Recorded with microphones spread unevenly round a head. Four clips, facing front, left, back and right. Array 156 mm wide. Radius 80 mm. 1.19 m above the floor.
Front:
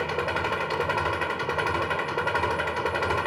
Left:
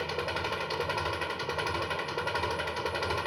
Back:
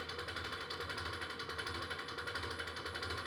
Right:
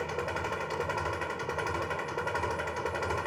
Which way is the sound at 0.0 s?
Straight ahead.